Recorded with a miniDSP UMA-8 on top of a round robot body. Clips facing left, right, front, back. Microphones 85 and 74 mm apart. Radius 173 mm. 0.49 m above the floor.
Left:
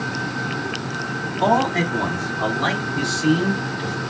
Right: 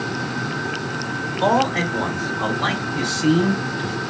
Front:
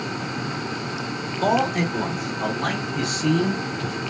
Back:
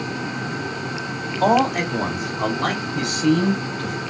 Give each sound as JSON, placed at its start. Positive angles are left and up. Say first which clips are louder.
{"t": 1.4, "sound": "a man speaking", "louder": "even, back 3 dB", "azimuth_deg": 155, "distance_m": 2.0}